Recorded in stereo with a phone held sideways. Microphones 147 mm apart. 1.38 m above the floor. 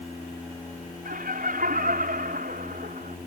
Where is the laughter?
80° right.